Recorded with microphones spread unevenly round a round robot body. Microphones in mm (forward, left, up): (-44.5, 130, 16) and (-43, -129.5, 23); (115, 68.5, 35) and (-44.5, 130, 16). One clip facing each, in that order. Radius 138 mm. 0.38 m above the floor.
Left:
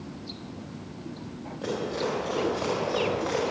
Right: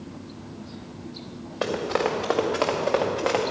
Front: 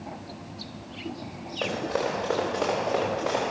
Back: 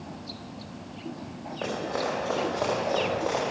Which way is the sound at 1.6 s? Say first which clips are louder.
Right 4 dB, front 2 dB; 90° right.